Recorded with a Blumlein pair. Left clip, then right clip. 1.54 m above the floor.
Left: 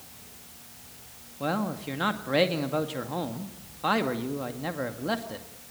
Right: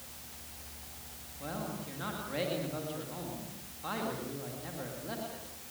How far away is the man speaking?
About 2 m.